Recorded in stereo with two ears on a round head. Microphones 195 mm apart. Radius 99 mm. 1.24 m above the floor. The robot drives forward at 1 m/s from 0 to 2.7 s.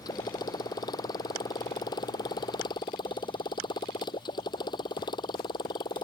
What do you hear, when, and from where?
0.0 s a motorcycle: 20° left (ahead or behind)